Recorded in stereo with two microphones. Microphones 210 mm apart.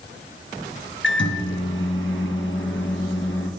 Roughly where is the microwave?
Left.